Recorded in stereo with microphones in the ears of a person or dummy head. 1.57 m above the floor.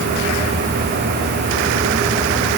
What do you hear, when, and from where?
Only background noise.